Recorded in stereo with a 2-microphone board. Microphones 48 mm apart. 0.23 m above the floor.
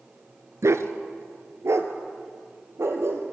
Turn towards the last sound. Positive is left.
turn(degrees=-60)  # may be behind; listen again after turning